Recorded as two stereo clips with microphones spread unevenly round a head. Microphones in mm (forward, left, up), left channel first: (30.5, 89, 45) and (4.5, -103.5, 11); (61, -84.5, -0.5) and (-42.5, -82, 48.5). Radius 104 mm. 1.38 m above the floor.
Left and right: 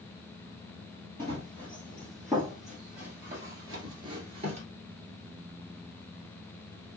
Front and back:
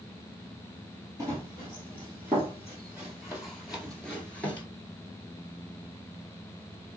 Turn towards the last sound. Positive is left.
turn(degrees=-120)